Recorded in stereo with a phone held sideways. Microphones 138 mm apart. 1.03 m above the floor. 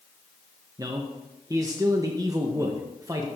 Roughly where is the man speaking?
Right.